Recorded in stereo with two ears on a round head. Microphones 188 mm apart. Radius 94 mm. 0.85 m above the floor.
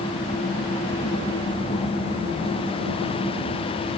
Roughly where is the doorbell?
No doorbell in this recording.